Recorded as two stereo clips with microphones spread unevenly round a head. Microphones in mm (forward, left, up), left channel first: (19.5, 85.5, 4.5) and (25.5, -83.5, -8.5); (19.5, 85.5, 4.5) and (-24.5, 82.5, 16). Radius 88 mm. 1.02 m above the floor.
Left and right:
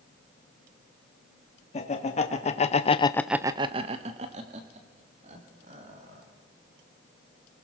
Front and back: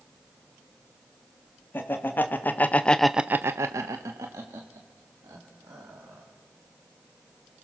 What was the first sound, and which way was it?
Laughter, 40° left.